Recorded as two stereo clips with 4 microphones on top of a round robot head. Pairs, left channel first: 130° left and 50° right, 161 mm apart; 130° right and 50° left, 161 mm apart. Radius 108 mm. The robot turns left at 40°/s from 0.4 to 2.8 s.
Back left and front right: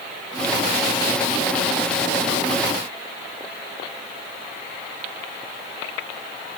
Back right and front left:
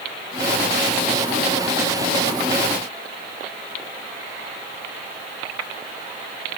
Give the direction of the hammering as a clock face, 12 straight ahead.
No hammering in this recording.